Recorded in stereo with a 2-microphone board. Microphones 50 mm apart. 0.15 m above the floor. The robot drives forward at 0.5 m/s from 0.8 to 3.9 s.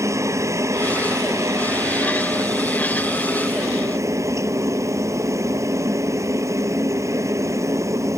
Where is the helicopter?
65° right (ahead or behind).